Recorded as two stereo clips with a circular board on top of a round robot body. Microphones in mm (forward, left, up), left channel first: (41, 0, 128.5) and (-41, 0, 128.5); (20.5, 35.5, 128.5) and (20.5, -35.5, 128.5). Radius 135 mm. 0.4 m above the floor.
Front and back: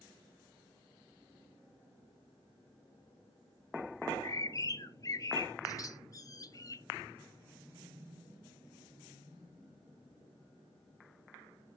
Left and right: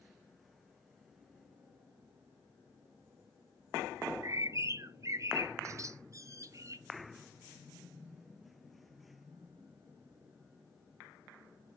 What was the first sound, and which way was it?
A bird, 45° right.